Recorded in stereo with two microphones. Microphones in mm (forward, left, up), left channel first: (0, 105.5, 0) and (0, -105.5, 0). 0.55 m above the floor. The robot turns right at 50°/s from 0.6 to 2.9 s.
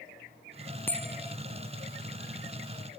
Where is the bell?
10° left (ahead or behind); by 1.4 s 15° right (ahead or behind).